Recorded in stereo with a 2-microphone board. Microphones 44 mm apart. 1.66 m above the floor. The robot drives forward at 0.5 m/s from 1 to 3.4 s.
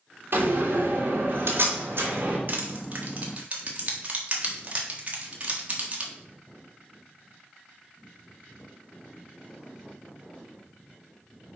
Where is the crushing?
45° right (ahead or behind), 1.1 m; by 6.1 s 35° right (ahead or behind), 1.5 m.